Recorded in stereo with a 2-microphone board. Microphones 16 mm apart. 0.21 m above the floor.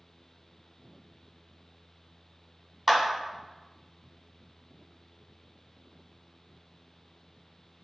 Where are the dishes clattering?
I don't hear dishes clattering.